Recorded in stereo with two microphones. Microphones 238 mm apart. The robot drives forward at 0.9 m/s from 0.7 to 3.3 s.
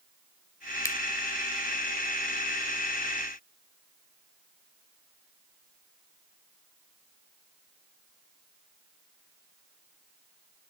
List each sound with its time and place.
0.8 s a finger snap: 15° left (ahead or behind), 1.4 m